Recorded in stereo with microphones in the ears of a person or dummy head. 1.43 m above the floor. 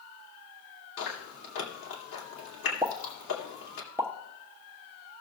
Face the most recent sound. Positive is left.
turn(degrees=-5)  # may be behind; listen again after turning